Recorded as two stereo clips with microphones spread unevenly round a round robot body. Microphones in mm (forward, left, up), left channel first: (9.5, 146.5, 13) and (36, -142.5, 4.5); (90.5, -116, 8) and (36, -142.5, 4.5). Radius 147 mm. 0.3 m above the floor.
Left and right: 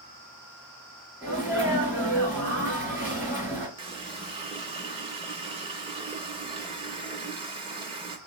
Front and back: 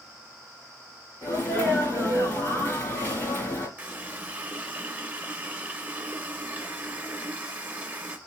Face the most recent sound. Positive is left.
turn(degrees=-130)